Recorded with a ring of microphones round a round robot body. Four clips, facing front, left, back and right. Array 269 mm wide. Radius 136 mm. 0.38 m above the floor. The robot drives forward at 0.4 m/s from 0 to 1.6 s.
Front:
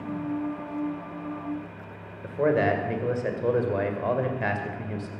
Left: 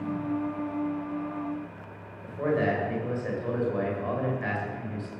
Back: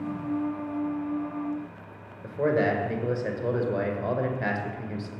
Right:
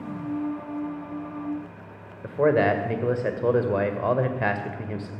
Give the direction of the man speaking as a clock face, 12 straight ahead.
3 o'clock.